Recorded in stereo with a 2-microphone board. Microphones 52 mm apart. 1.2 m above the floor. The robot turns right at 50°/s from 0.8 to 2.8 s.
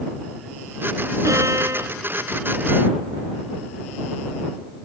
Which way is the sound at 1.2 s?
90° right.